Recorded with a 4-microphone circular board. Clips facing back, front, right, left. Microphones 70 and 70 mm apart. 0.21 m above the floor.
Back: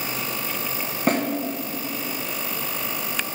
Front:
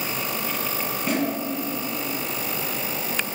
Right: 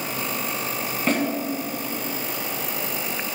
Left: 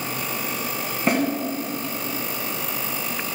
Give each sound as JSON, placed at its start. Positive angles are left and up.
{"t": 1.1, "sound": "a snare drum", "azimuth_deg": 165, "distance_m": 1.7}